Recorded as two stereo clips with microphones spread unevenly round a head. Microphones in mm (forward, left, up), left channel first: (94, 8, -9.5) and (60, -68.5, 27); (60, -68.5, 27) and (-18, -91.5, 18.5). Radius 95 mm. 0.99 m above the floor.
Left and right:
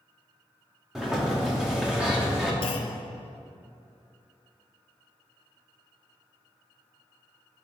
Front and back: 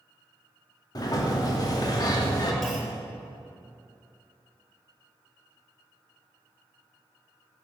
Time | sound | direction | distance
0.9 | a sliding door | 25° right | 2.5 m
2.6 | a clunk | 95° left | 0.8 m